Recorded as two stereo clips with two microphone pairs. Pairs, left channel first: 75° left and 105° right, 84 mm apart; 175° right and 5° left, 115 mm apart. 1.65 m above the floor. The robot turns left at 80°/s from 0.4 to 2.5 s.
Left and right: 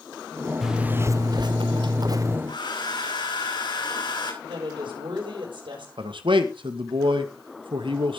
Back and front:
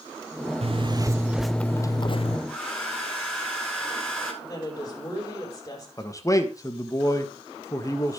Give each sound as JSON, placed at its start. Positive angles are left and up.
{"t": 0.6, "sound": "a zipper", "azimuth_deg": -15, "distance_m": 0.6}
{"t": 2.5, "sound": "a hair dryer", "azimuth_deg": 100, "distance_m": 9.5}
{"t": 4.4, "sound": "a woman speaking", "azimuth_deg": -115, "distance_m": 8.0}
{"t": 6.0, "sound": "a man speaking", "azimuth_deg": -110, "distance_m": 2.0}